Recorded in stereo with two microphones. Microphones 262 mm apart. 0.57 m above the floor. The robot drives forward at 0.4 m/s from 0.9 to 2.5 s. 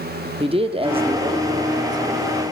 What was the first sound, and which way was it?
A man speaking, 20° right (ahead or behind).